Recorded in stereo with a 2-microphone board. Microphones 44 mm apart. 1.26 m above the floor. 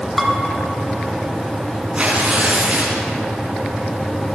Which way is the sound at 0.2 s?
5° right (ahead or behind).